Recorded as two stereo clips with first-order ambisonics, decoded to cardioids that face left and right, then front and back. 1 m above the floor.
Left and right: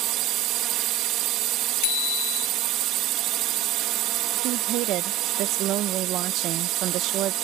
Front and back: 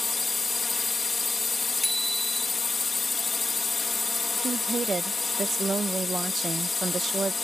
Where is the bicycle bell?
85° left.